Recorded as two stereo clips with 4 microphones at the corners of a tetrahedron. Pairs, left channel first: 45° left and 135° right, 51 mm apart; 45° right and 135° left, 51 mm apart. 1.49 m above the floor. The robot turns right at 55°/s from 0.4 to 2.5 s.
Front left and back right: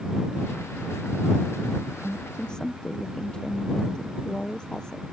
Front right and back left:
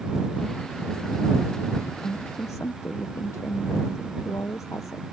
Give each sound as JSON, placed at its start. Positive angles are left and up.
{"t": 2.0, "sound": "a woman speaking", "azimuth_deg": -55}